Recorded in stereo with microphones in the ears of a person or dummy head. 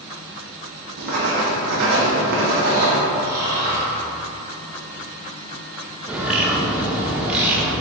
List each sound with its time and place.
1.0 s writing: 50° right (ahead or behind), 0.5 m
3.2 s snoring: 15° right (ahead or behind), 1.3 m
6.1 s a bird: 10° right (ahead or behind), 0.5 m